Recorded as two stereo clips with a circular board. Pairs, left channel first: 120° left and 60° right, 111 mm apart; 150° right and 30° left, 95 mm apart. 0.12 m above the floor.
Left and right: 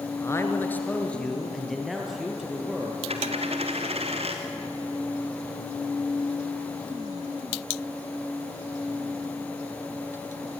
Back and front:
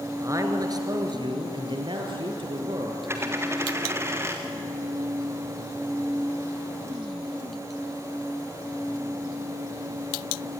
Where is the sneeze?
No sneeze in this recording.